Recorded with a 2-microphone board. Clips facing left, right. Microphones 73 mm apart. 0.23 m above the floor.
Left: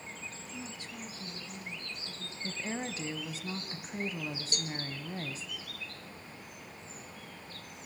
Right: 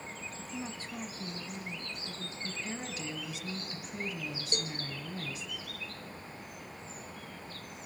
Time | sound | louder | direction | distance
0.4 | a woman speaking | right 4 dB | 40° right (ahead or behind) | 2 m
2.4 | a woman speaking | left 4 dB | 35° left (ahead or behind) | 1.6 m
4.5 | a cowbell | right 2 dB | 30° right (ahead or behind) | 1.2 m